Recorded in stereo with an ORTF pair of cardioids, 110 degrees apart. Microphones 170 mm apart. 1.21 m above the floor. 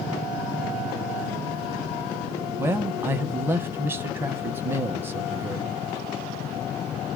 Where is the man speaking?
15° right, 0.7 m.